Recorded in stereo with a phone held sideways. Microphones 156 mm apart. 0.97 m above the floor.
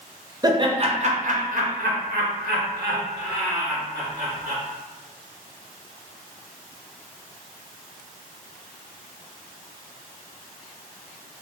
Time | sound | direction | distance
0.4 | laughter | 25° right (ahead or behind) | 0.7 m